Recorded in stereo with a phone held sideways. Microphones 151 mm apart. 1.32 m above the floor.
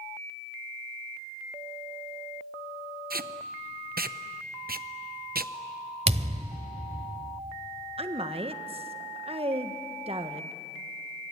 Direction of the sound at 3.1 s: 80° right.